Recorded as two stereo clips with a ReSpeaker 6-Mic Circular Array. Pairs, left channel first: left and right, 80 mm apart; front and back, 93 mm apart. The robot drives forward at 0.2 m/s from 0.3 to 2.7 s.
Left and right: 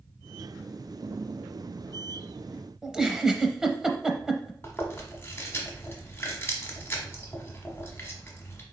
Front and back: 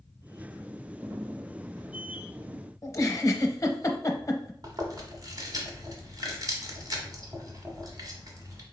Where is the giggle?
15° right, 0.7 m.